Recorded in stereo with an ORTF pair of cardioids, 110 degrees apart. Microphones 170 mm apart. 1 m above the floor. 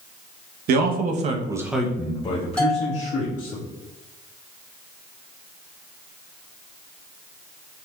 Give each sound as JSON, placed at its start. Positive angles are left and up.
{"t": 0.7, "sound": "a man speaking", "azimuth_deg": -70, "distance_m": 0.9}
{"t": 2.6, "sound": "a bell", "azimuth_deg": 5, "distance_m": 1.4}